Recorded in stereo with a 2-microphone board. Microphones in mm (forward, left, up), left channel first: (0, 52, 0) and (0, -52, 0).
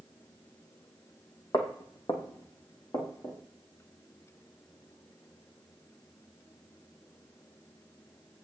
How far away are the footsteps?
About 1.8 m.